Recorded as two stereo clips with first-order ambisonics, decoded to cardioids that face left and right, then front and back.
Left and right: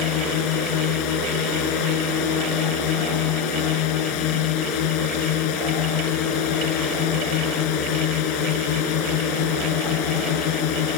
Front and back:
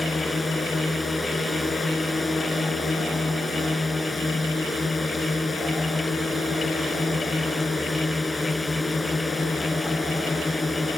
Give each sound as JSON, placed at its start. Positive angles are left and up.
{"t": 0.0, "sound": "a drone", "azimuth_deg": 80}